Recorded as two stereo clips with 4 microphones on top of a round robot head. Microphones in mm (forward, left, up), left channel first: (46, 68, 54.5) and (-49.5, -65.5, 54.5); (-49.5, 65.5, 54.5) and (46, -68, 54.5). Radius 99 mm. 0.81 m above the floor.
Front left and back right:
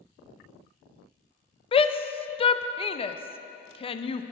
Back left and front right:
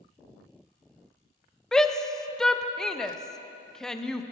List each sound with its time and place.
1.7 s a shout: 40° left, 0.7 m